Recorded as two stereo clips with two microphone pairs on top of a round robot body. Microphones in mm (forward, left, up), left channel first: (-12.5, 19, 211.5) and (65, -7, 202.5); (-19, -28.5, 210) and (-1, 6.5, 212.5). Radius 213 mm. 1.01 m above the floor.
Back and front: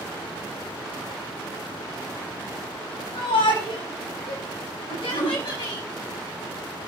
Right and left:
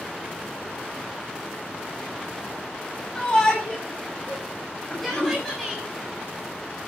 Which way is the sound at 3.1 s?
175° left.